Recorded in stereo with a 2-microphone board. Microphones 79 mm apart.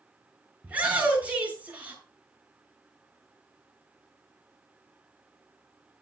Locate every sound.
0.6 s a shout: 20° right (ahead or behind), 8 m